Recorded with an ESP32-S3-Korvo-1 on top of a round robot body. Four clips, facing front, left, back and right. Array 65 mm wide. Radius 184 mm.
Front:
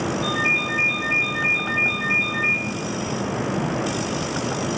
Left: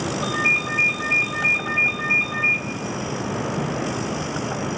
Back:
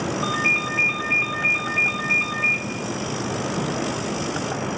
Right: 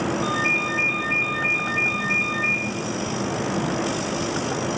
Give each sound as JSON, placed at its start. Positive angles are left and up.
{"t": 0.2, "sound": "a ringtone", "azimuth_deg": -170, "distance_m": 3.0}